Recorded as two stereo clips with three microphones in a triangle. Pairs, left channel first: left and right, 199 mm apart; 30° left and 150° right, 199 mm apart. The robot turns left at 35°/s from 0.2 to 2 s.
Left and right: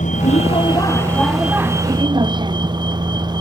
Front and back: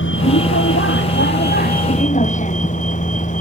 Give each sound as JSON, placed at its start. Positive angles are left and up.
{"t": 0.0, "sound": "a vehicle", "azimuth_deg": 40}